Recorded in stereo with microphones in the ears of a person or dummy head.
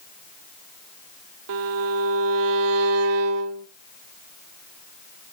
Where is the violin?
55° right (ahead or behind), 0.7 m.